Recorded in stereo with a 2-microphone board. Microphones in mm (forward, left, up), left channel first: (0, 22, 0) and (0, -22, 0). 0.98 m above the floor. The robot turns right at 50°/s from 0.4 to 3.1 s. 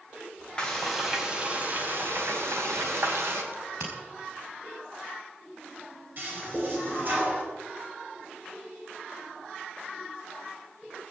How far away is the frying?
About 4 m.